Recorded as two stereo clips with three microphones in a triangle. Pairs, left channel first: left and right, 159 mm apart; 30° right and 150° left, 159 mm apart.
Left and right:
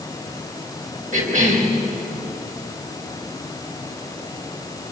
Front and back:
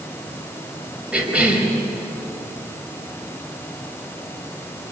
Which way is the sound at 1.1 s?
125° right.